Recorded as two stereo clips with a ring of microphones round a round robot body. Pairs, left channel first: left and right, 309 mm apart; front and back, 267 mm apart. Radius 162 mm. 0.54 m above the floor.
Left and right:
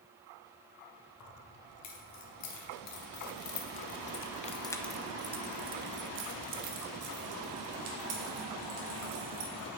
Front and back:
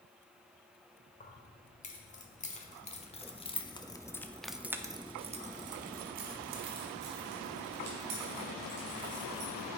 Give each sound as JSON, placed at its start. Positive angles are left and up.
{"t": 1.2, "sound": "keys jangling", "azimuth_deg": 60, "distance_m": 2.0}